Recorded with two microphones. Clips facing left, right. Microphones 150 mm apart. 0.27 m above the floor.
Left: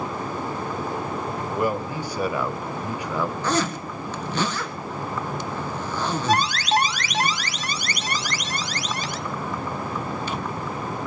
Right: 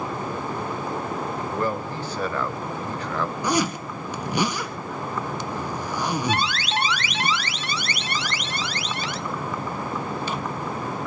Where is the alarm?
40° left (ahead or behind), 1.1 m.